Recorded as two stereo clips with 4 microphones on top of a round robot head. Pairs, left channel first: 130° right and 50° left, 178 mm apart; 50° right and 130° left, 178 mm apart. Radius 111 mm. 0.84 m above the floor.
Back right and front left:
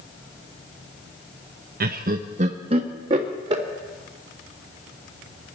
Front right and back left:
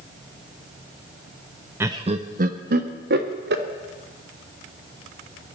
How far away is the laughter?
About 0.6 m.